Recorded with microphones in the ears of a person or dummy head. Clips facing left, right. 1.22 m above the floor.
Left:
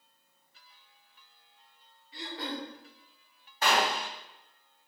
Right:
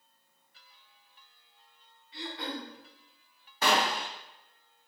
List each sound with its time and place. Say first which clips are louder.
2.1 s throat clearing: left 1 dB; 35° left (ahead or behind), 1.4 m
3.6 s a gunshot: even; 75° right (ahead or behind), 0.7 m